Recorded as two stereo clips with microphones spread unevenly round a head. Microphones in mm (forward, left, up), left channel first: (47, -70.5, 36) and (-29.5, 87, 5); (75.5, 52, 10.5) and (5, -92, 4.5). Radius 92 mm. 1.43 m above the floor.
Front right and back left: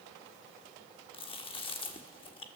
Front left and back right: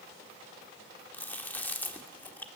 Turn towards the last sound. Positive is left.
turn(degrees=-10)